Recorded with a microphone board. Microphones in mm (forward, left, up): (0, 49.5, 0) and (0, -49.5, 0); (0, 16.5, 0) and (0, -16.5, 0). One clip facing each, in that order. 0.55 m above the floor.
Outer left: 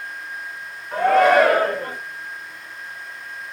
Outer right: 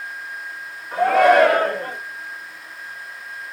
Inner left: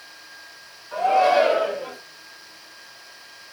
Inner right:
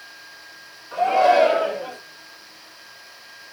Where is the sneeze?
No sneeze in this recording.